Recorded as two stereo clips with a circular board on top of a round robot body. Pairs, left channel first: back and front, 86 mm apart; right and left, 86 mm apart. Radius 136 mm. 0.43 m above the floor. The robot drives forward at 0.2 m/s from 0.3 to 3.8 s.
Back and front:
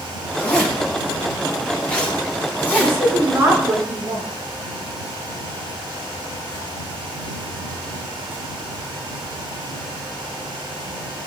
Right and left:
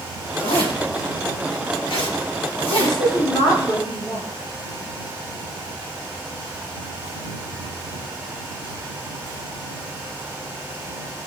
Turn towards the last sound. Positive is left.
turn(degrees=-65)